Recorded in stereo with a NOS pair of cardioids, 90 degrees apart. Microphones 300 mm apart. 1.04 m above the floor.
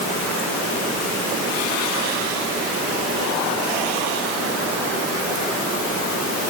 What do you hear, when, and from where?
Only background noise.